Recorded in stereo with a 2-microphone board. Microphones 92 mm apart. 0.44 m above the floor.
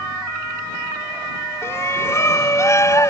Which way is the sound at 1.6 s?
30° left (ahead or behind).